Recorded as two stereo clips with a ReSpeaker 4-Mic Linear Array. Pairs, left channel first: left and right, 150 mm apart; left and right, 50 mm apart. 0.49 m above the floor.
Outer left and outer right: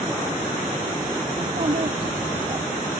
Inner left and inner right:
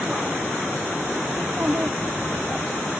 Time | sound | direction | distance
1.4 | a child speaking | 50° right (ahead or behind) | ?